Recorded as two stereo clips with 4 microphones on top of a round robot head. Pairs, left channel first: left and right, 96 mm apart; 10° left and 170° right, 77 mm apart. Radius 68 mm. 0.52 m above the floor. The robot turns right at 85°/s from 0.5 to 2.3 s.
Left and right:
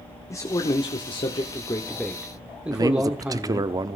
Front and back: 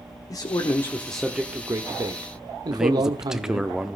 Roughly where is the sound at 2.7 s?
Right.